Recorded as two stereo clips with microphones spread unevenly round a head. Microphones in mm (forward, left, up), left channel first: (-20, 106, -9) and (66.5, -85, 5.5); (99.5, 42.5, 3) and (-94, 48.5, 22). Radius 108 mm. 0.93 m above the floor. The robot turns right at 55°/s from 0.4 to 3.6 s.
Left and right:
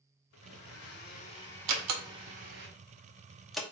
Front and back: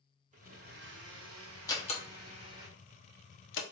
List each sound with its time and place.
0.3 s a blender: 130° left, 0.9 m; by 2.7 s 105° right, 0.9 m
1.7 s a door slam: 80° right, 0.8 m; by 3.6 s 25° left, 0.8 m